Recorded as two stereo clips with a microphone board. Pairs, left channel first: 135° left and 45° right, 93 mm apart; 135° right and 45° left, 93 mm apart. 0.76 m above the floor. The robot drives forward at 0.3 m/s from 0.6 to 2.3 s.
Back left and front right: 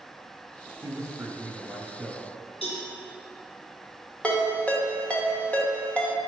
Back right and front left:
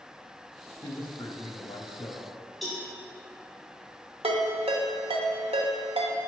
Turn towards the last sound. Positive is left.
turn(degrees=55)